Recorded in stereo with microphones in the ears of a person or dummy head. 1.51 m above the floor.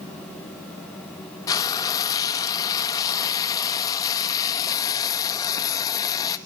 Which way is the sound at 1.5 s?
20° left (ahead or behind).